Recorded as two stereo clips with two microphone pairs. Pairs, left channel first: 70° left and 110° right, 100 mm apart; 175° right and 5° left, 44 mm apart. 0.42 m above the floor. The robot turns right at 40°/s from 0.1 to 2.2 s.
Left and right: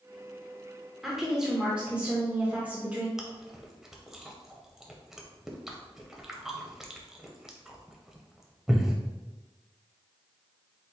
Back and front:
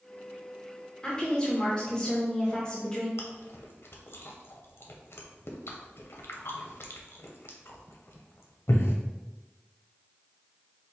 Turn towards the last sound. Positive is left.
turn(degrees=165)